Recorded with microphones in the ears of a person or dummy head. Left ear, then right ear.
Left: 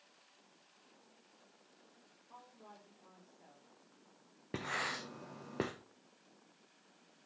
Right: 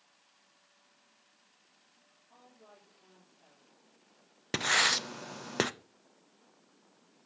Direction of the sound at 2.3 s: 25° left (ahead or behind).